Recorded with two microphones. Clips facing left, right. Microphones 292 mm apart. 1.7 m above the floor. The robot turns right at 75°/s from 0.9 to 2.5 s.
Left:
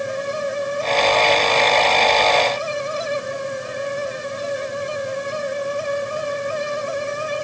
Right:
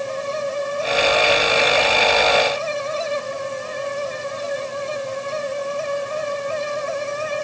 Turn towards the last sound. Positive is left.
No sound to turn to.